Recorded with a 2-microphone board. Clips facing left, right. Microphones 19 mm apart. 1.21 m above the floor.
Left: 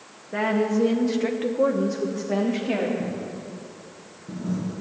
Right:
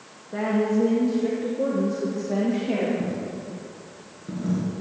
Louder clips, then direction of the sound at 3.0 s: Right 1 dB; 45° right (ahead or behind).